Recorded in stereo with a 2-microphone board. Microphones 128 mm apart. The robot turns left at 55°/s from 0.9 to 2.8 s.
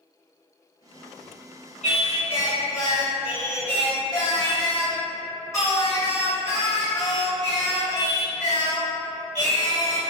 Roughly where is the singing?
Left.